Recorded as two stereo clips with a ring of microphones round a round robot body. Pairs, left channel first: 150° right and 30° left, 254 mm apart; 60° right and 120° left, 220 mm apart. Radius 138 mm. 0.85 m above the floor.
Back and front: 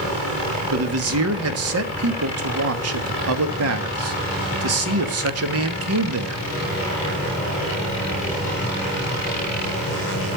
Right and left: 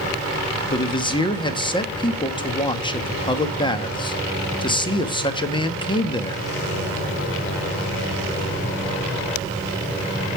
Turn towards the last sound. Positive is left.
turn(degrees=10)